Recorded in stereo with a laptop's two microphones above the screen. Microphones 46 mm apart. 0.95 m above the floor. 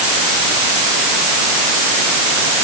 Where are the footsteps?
I don't hear footsteps.